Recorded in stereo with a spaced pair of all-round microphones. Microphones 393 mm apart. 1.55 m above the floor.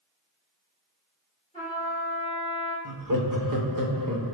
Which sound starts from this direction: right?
Laughter, at 2.9 s.